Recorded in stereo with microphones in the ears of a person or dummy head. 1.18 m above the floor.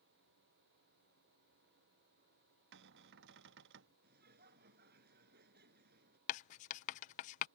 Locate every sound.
2.7 s a cupboard door: 60° right (ahead or behind)
4.0 s laughter: 60° right (ahead or behind)
6.3 s writing: 35° left (ahead or behind)